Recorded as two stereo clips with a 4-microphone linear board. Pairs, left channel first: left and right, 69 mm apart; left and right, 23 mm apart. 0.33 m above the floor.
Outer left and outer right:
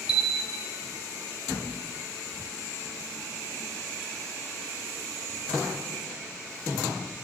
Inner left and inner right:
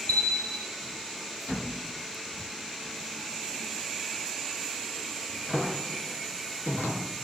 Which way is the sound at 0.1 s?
75° left (ahead or behind).